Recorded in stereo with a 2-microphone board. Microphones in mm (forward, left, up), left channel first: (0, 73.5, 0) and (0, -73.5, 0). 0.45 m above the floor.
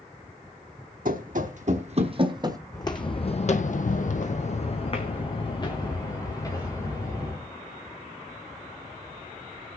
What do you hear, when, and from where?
1.1 s running footsteps: 70° right (ahead or behind), 1.3 m; by 2.6 s 25° right (ahead or behind), 1.0 m
2.7 s footsteps: 25° left (ahead or behind), 1.3 m; by 7.5 s 20° left (ahead or behind), 4 m